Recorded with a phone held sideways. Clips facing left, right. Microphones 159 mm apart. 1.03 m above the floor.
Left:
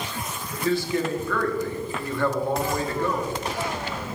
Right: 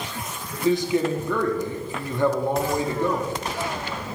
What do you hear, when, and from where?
0.6 s a man speaking: 20° right (ahead or behind), 1.0 m